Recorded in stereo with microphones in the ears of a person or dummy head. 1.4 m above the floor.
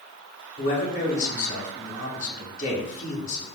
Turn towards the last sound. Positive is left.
turn(degrees=45)  # may be behind; listen again after turning